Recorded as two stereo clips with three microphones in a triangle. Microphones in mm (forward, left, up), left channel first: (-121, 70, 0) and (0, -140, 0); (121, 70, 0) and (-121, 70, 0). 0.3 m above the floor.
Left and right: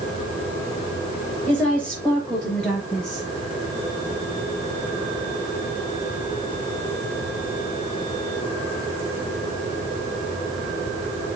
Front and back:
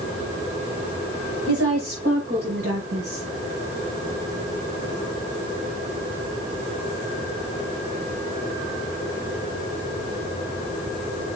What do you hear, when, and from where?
1.5 s a woman speaking: 155° right, 5.5 m; by 3.3 s 150° right, 6.5 m